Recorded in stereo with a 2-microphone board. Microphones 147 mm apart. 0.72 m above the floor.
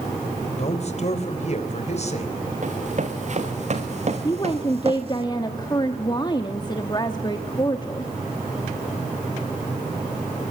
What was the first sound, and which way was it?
A man speaking, 50° left (ahead or behind).